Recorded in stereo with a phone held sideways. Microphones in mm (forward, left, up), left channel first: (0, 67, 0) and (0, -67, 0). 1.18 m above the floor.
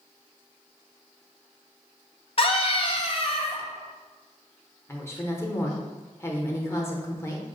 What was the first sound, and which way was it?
A scream, 45° left (ahead or behind).